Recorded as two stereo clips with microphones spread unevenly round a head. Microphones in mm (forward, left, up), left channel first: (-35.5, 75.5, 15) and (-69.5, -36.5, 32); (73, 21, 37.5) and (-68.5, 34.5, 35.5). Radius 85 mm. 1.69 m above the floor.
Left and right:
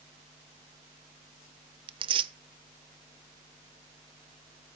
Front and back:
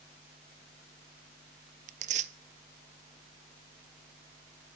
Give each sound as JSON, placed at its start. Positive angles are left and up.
{"t": 1.9, "sound": "tearing paper", "azimuth_deg": -140, "distance_m": 0.6}